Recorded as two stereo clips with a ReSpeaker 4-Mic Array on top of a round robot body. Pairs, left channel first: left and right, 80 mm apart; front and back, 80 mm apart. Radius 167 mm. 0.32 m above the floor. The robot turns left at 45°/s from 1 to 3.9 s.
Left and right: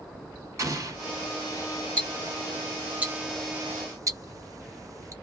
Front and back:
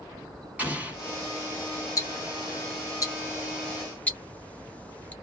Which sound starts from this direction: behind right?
An explosion, at 0.6 s.